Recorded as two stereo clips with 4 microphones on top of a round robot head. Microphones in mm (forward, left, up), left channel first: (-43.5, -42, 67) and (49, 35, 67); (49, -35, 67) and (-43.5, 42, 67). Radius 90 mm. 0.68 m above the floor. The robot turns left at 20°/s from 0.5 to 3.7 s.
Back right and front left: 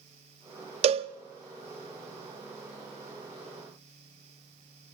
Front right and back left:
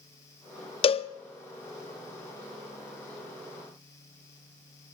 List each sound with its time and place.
0.8 s a cowbell: 5° left, 0.6 m; by 1.1 s straight ahead, 0.6 m